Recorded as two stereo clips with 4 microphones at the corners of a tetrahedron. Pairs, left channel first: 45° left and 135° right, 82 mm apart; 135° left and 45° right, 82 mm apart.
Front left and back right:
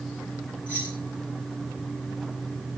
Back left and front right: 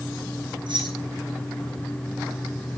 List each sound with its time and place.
0.7 s keys jangling: 65° right, 7 m